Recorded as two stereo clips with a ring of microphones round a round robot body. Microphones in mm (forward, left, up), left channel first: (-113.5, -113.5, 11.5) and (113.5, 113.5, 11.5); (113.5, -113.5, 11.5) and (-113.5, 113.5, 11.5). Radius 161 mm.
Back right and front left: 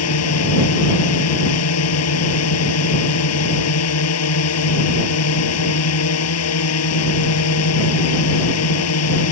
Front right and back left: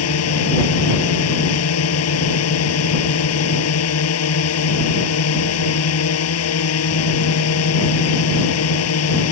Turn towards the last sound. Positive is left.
turn(degrees=-90)